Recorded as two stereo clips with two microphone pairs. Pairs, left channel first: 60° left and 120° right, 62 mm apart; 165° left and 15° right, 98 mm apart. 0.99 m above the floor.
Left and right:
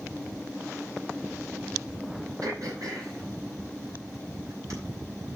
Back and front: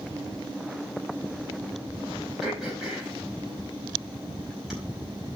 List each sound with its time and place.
2.4 s throat clearing: 100° right, 4.5 m